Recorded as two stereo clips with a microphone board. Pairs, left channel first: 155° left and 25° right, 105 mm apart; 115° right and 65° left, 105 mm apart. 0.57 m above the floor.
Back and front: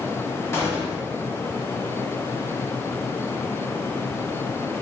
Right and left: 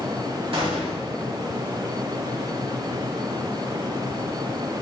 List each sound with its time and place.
0.5 s a gunshot: 95° left, 0.7 m